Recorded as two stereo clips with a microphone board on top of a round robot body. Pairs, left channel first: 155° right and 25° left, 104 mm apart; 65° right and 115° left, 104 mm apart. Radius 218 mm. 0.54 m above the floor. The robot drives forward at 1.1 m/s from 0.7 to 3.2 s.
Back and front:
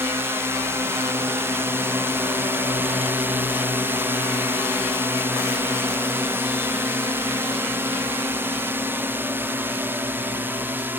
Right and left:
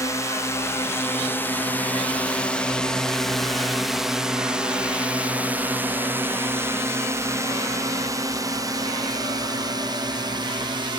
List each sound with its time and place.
0.0 s a drone: 30° right; by 11.0 s 90° left